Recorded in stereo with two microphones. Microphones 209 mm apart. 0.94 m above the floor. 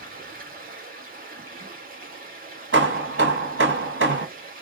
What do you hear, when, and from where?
0.0 s running water: 45° right (ahead or behind), 1.1 m
2.7 s hammering: 70° right (ahead or behind), 1.2 m